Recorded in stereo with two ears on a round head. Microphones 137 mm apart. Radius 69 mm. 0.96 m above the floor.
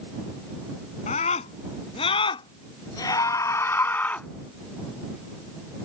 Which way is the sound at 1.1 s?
45° left (ahead or behind).